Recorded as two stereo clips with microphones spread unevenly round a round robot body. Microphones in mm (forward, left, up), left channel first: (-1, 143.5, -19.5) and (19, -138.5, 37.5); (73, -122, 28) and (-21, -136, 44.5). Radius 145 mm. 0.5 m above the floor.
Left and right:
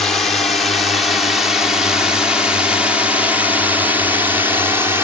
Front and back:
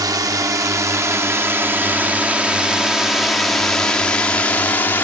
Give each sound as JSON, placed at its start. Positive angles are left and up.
{"t": 0.0, "sound": "a drone", "azimuth_deg": 160}